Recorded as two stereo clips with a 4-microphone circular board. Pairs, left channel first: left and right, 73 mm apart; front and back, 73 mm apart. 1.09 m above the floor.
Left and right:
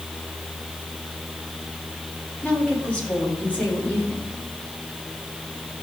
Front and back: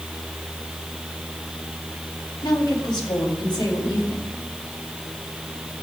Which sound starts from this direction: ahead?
A woman speaking, at 2.4 s.